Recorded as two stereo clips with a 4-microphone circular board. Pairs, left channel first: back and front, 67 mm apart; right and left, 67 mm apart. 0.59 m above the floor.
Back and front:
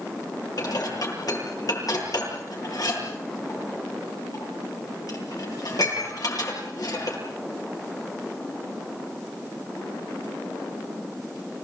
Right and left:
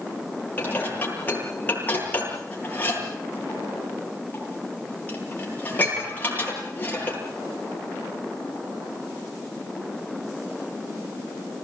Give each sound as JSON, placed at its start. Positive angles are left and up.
{"t": 0.6, "sound": "dishes clattering", "azimuth_deg": -155, "distance_m": 9.5}